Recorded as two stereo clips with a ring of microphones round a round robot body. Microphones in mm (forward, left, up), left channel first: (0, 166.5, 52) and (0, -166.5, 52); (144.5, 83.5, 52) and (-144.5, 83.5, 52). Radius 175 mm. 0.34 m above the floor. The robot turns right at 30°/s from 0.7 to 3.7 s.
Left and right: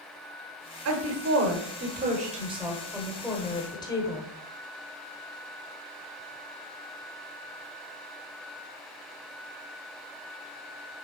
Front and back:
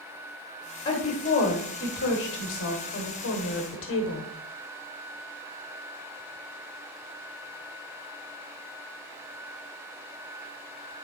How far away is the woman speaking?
About 1.2 m.